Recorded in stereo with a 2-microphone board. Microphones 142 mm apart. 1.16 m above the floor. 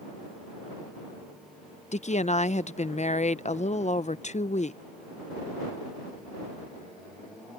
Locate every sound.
1.9 s a woman speaking: 55° left (ahead or behind)